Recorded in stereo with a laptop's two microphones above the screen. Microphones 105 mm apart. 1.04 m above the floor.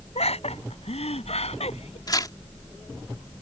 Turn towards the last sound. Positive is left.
turn(degrees=40)  # may be behind; listen again after turning